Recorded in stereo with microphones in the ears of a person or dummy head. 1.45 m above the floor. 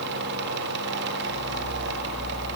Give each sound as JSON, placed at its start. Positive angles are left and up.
{"t": 0.0, "sound": "a fan", "side_deg": -55, "distance_m": 1.1}